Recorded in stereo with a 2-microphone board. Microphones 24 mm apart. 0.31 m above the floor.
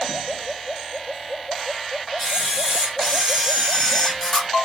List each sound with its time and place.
2.2 s a camera shutter: 5° right (ahead or behind), 3 m